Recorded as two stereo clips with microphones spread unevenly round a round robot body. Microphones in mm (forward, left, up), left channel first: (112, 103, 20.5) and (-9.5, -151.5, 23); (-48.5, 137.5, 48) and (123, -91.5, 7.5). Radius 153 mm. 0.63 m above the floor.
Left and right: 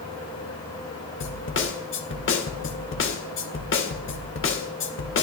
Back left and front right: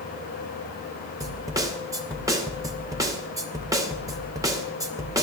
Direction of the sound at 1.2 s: 20° left.